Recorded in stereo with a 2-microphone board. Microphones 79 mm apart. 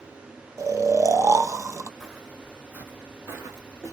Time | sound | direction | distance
0.6 | snoring | 40° right (ahead or behind) | 0.5 m
2.0 | footsteps | 5° right (ahead or behind) | 1.2 m